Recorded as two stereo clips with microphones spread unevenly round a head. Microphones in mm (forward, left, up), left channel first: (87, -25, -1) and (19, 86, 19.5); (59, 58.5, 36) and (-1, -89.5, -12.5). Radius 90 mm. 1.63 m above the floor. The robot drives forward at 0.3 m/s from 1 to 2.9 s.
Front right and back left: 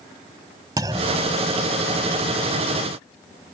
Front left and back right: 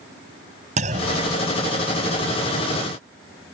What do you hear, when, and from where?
0.8 s a clunk: 170° right